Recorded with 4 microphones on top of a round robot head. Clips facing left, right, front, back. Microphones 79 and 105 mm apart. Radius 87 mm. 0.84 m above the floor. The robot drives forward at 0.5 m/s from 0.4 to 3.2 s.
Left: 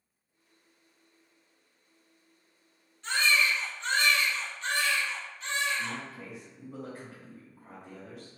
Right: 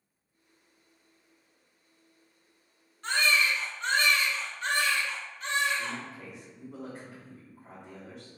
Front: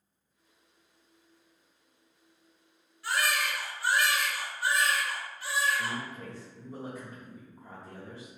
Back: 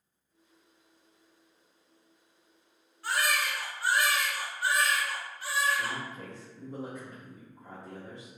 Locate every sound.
3.0 s a baby crying: 130° right, 1.5 m; by 6.0 s 135° right, 1.6 m
5.8 s a man speaking: straight behind, 1.4 m